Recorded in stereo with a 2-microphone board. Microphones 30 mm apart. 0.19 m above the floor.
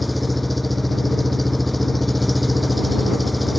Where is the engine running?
5° left (ahead or behind).